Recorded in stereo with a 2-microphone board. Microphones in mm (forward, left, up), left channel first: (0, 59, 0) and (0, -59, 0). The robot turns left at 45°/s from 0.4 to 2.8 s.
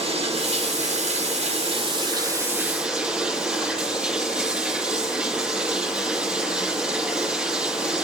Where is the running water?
60° right, 2.5 m; by 8.0 s 170° right, 2.5 m.